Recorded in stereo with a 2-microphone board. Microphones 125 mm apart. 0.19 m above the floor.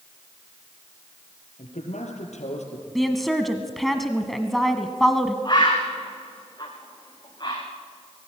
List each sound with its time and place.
1.6 s a man speaking: 75° left (ahead or behind), 5.5 m; by 2.9 s 70° left (ahead or behind), 5.5 m
3.0 s a woman speaking: centre (ahead or behind), 1.2 m
5.5 s a bird: 40° left (ahead or behind), 5 m